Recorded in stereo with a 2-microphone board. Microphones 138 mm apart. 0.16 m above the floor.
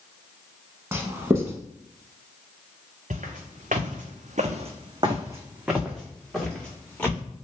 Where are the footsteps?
70° right (ahead or behind), 1.0 m; by 7.2 s 10° left (ahead or behind), 1.5 m.